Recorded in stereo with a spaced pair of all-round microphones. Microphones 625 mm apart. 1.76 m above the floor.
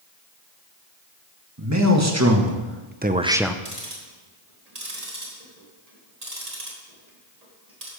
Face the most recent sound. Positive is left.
turn(degrees=-85)